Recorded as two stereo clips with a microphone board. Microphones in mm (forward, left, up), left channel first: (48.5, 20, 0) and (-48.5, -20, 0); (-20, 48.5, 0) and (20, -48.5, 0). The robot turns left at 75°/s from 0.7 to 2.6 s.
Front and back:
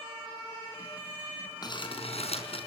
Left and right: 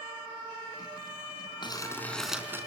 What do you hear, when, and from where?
1.6 s crumpling: 70° left, 4.5 m; by 2.7 s straight ahead, 4.5 m